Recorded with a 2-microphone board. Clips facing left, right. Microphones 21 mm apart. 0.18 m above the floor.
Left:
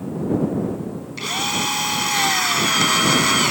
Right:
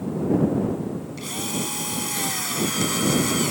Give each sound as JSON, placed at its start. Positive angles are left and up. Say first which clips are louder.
{"t": 1.2, "sound": "a drill", "louder": "left 10 dB", "side_deg": 35}